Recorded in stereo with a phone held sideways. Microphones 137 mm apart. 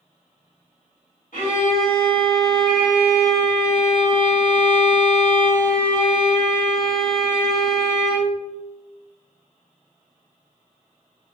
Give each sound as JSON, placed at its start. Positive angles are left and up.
{"t": 1.3, "sound": "a violin", "side_deg": 70, "distance_m": 1.8}